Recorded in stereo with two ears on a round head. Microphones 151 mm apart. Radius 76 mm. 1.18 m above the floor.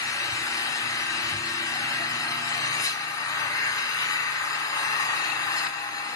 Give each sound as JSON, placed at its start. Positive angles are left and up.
{"t": 0.0, "sound": "an engine running", "side_deg": 20, "distance_m": 2.0}